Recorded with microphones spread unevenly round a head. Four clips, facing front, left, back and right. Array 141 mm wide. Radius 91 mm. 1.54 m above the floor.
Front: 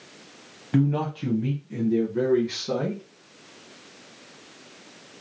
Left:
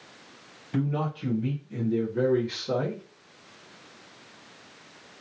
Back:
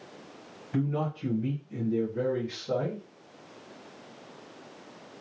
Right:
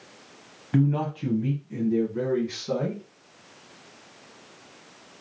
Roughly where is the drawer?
No drawer in this recording.